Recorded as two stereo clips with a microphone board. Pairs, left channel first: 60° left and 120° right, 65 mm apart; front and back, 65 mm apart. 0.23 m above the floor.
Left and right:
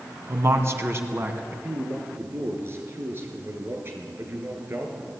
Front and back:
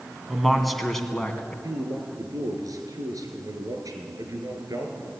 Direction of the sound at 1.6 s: 170° right.